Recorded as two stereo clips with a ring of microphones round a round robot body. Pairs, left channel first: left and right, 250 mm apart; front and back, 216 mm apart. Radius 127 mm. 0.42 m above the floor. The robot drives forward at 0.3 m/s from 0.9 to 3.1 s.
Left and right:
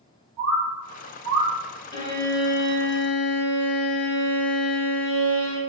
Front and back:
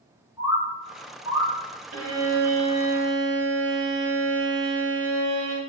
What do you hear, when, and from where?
0.4 s a bird: 90° right, 1.4 m; by 1.5 s 100° right, 1.4 m
1.9 s a violin: 165° left, 2 m